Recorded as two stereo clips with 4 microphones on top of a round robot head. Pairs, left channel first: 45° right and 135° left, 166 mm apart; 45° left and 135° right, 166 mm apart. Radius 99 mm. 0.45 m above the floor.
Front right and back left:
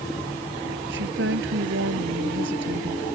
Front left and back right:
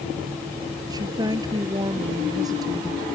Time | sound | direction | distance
0.9 | a woman speaking | 155° left | ?